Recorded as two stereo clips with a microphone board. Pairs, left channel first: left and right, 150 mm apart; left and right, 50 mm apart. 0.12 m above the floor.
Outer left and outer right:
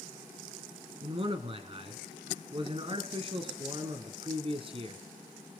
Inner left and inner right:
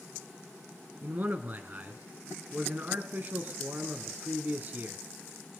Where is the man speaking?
35° right (ahead or behind), 1.4 m.